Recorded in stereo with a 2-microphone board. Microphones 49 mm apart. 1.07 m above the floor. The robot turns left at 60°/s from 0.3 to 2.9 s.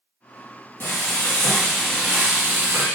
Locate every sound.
0.8 s frying: 60° left, 1.6 m; by 2.9 s 60° right, 1.6 m